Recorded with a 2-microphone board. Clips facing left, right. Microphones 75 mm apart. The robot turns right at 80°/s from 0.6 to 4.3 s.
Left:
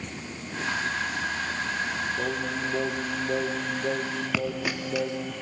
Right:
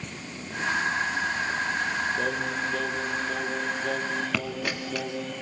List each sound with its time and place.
2.2 s singing: 5° right (ahead or behind), 1.3 m; by 5.3 s 10° left (ahead or behind), 1.3 m
4.3 s a dropped coin: 5° left (ahead or behind), 2.5 m